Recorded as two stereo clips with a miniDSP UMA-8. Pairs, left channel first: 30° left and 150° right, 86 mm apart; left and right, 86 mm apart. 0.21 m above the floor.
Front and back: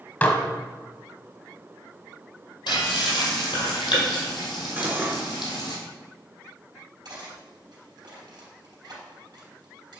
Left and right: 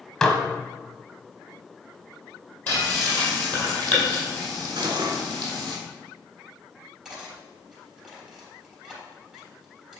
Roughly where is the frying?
Ahead.